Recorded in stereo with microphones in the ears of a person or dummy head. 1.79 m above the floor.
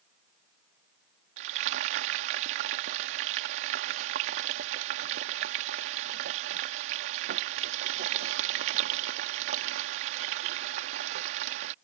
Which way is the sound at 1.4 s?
50° right (ahead or behind).